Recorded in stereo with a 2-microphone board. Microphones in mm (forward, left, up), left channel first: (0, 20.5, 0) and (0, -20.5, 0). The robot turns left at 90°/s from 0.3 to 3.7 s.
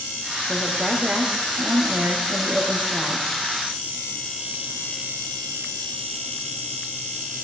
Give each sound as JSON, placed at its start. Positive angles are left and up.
{"t": 0.5, "sound": "a woman speaking", "azimuth_deg": 50, "distance_m": 4.5}